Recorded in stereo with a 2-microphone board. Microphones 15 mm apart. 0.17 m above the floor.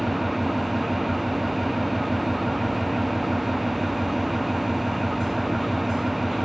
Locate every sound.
0.0 s an engine running: 5° right (ahead or behind)